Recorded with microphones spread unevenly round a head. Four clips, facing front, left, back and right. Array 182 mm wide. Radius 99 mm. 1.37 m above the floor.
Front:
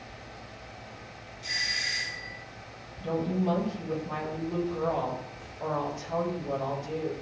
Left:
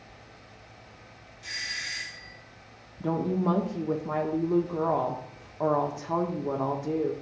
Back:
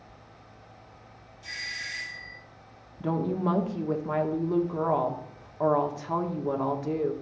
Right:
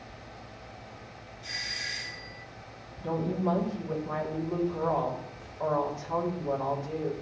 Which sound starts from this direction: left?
A doorbell, at 1.4 s.